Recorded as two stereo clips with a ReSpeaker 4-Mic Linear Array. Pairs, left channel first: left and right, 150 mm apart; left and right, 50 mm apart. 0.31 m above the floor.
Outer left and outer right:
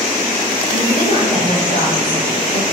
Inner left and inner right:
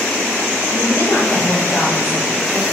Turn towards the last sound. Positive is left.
turn(degrees=55)  # may be behind; listen again after turning